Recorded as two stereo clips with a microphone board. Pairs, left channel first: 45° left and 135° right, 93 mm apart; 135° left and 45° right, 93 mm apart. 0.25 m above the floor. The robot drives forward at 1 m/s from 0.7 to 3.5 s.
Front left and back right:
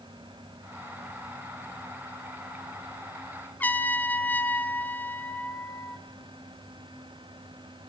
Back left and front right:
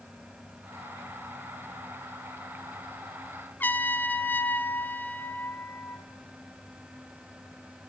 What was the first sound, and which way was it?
A trumpet, 95° left.